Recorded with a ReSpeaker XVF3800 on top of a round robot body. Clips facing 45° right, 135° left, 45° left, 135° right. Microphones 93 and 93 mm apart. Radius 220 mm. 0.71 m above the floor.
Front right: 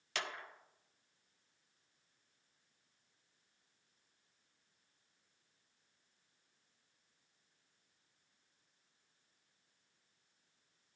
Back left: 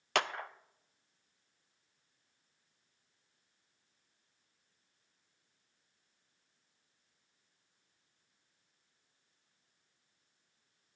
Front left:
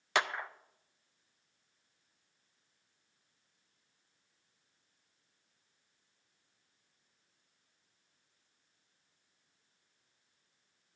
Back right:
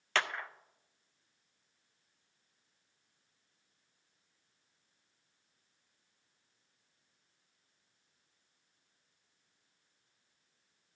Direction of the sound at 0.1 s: 120° left.